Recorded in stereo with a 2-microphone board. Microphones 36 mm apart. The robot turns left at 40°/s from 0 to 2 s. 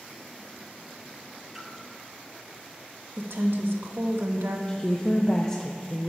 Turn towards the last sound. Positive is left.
turn(degrees=20)  # may be behind; listen again after turning